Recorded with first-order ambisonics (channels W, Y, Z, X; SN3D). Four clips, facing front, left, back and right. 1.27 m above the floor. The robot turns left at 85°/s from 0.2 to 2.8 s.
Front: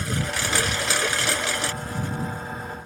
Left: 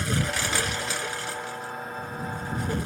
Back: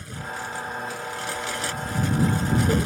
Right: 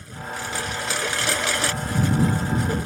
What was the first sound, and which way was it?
A lawn mower, 50° left.